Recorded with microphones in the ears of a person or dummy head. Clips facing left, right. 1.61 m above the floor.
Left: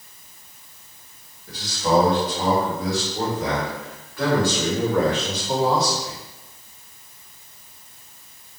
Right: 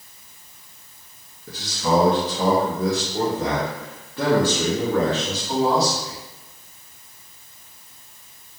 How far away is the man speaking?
About 1.8 m.